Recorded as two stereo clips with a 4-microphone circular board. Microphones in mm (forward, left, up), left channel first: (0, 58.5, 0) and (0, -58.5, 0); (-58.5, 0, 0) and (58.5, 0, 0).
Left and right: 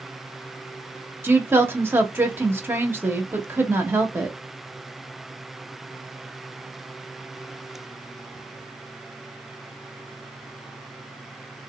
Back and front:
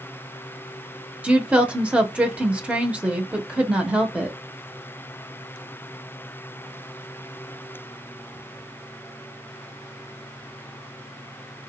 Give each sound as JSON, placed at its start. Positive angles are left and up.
{"t": 1.2, "sound": "a woman speaking", "azimuth_deg": -60, "distance_m": 0.7}